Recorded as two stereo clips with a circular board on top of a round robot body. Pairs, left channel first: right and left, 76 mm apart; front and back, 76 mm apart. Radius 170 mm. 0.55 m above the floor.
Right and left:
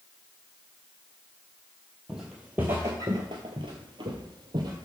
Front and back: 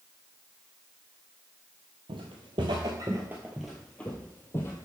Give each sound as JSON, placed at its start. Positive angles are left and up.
{"t": 2.1, "sound": "footsteps", "azimuth_deg": 175, "distance_m": 0.9}